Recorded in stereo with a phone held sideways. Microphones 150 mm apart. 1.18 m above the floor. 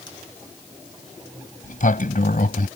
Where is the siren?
I don't hear a siren.